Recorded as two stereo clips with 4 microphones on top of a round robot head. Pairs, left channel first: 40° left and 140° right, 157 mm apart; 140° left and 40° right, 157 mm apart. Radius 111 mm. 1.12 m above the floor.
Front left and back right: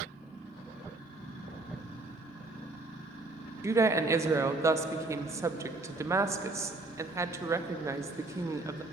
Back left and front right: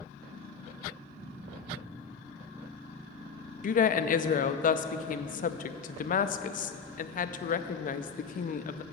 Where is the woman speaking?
150° left, 0.6 m.